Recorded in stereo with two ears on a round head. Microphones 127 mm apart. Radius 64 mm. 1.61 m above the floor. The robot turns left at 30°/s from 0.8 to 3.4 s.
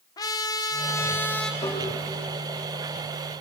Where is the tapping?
35° left (ahead or behind), 3 m; by 1.8 s 30° left (ahead or behind), 3 m.